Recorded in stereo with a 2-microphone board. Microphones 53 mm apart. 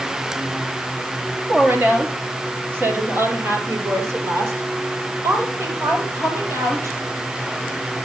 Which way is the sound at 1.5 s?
35° right (ahead or behind).